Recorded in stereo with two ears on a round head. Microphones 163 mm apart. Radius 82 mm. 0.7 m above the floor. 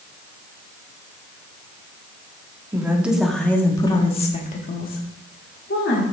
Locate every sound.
2.7 s a woman speaking: 15° right (ahead or behind), 1.4 m; by 6.0 s 70° left (ahead or behind), 2 m